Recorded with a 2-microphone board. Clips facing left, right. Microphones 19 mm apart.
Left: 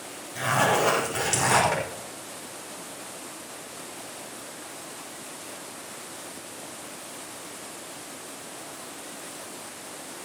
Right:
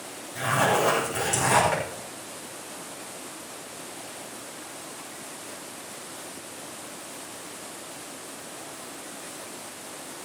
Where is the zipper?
45° left (ahead or behind), 5 m.